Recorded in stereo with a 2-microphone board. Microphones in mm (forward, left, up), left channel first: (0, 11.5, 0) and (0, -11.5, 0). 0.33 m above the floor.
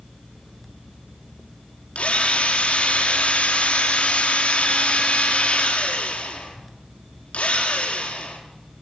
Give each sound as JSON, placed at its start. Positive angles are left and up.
{"t": 1.9, "sound": "a drill", "side_deg": 80, "distance_m": 6.0}